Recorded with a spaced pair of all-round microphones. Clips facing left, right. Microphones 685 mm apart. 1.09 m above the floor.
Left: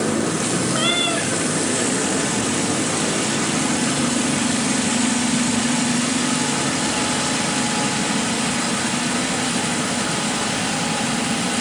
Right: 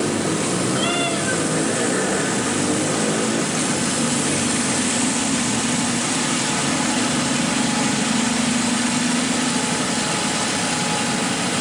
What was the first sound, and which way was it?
A cat meowing, 80° left.